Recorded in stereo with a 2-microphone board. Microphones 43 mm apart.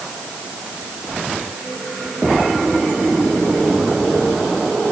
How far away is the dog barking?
I don't hear a dog barking.